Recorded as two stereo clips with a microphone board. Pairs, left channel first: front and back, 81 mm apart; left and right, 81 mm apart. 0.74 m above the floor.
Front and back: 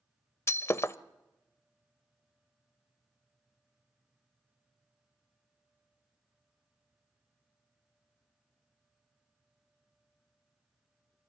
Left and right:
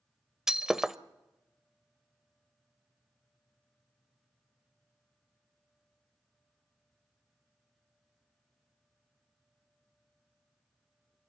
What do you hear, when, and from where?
0.5 s breaking glass: 10° right, 0.5 m